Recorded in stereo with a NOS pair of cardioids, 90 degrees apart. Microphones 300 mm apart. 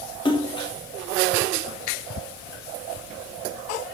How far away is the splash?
About 0.6 m.